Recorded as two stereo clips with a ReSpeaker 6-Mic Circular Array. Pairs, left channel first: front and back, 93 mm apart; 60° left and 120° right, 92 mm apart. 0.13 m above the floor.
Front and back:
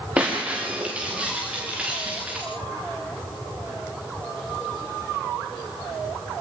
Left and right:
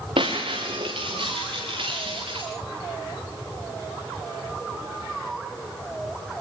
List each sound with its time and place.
0.2 s breaking glass: 105° right, 9 m